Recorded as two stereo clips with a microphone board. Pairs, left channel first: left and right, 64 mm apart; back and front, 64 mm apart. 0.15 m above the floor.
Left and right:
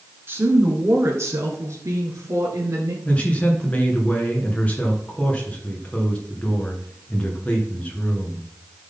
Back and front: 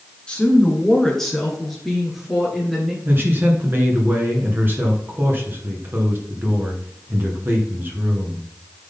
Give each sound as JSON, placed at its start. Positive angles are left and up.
{"t": 0.3, "sound": "a woman speaking", "azimuth_deg": -115, "distance_m": 2.0}
{"t": 3.0, "sound": "a man speaking", "azimuth_deg": 35, "distance_m": 2.0}